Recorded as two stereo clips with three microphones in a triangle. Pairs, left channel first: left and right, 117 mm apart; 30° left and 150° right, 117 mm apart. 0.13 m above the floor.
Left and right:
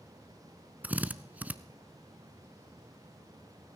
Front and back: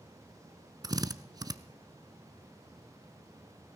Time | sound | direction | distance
0.8 | a drill | 155° right | 0.5 m